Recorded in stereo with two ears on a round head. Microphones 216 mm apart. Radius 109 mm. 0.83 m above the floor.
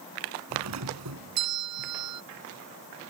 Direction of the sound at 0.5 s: 85° right.